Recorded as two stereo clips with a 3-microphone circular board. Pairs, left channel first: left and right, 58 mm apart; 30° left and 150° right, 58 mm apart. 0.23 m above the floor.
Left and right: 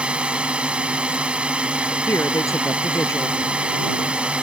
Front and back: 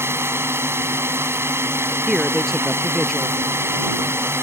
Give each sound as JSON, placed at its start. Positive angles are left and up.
{"t": 0.0, "sound": "a drone", "azimuth_deg": -155}
{"t": 2.1, "sound": "a man speaking", "azimuth_deg": 115}